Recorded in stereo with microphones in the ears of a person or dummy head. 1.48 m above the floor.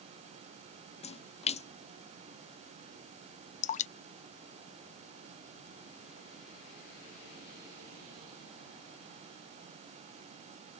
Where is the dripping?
35° left (ahead or behind).